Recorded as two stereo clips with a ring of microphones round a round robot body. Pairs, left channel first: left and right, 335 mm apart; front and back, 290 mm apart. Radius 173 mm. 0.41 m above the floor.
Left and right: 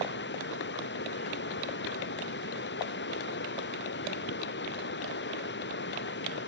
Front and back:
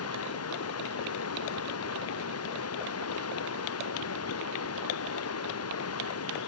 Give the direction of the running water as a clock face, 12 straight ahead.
11 o'clock.